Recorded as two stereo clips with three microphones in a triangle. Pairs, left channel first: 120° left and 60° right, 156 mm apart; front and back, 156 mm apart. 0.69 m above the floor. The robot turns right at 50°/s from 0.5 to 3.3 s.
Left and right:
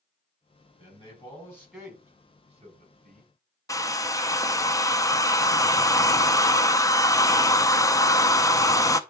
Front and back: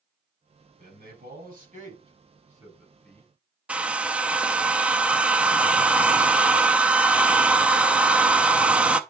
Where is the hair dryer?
115° left, 0.5 m.